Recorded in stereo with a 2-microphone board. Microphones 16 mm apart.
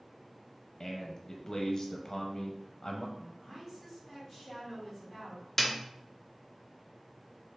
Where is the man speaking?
40° left (ahead or behind), 0.6 m.